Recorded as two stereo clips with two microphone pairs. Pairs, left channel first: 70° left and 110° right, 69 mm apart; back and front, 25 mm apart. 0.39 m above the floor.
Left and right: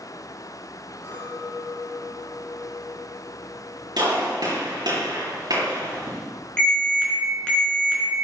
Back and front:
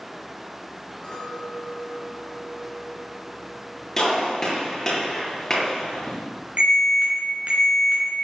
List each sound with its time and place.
1.0 s a clink: 130° left, 4 m
4.0 s a gunshot: 110° right, 5 m
6.6 s an alarm: straight ahead, 4 m